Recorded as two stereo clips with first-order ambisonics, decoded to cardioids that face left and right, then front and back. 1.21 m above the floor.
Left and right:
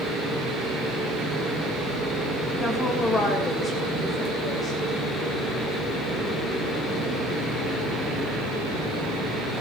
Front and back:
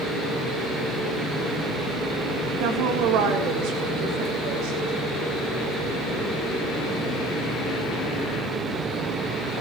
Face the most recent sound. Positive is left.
turn(degrees=165)